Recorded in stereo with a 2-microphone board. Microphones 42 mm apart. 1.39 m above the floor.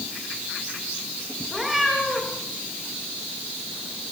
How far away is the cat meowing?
About 7 m.